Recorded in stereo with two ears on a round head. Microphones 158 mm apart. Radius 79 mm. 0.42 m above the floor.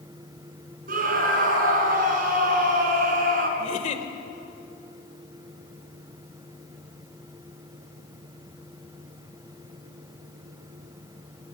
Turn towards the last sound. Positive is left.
turn(degrees=45)  # may be behind; listen again after turning